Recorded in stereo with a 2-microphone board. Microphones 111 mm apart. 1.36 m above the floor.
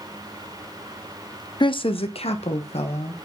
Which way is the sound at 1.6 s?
45° left (ahead or behind).